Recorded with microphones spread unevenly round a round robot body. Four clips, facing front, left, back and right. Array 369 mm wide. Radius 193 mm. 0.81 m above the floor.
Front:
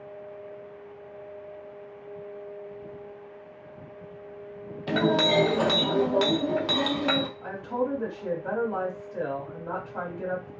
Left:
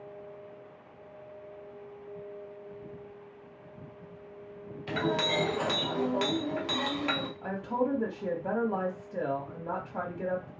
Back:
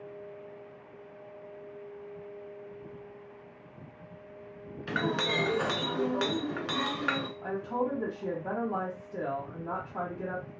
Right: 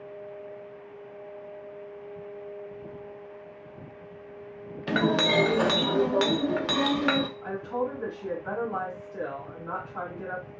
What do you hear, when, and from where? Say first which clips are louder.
4.9 s a clink: right 5 dB, front 8 dB; 55° right, 0.6 m
7.4 s a woman speaking: even, front 2 dB; 70° left, 1.2 m